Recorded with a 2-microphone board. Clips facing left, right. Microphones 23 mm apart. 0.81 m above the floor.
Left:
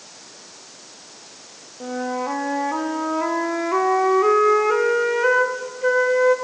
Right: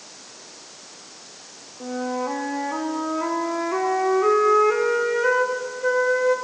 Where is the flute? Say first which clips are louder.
Left 1 dB; 15° left (ahead or behind), 1.0 m.